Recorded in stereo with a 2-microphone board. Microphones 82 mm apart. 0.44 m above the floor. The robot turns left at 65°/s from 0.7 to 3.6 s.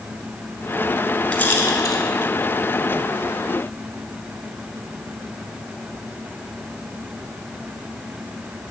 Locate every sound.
1.3 s a rattle: 20° left (ahead or behind), 1.8 m; by 2.0 s 55° left (ahead or behind), 1.8 m